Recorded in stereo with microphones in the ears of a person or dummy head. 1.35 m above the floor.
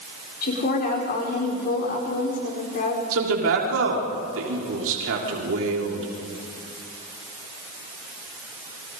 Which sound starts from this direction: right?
A man speaking, at 3.1 s.